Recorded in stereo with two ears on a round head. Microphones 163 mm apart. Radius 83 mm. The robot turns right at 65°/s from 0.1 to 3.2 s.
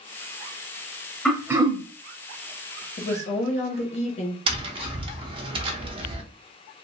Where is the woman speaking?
45° left (ahead or behind), 0.8 m; by 4.4 s 35° left (ahead or behind), 0.8 m.